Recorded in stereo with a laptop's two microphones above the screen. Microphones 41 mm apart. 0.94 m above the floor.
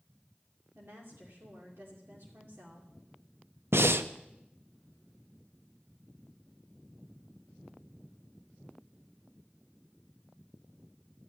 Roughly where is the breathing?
Right.